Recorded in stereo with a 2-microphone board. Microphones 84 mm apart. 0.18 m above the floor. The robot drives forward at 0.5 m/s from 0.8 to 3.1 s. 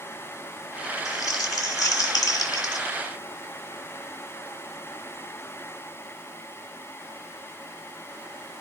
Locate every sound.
1.1 s crumpling: 45° left (ahead or behind), 2 m; by 2.9 s 50° left (ahead or behind), 2 m